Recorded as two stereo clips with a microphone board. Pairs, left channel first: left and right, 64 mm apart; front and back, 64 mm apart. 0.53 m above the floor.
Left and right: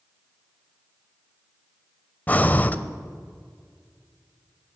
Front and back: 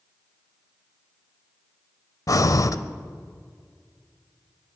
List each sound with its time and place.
2.3 s breathing: 30° left, 0.6 m